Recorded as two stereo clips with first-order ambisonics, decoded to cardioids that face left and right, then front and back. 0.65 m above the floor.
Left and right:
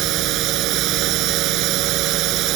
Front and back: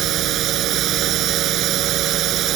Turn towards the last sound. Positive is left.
turn(degrees=-130)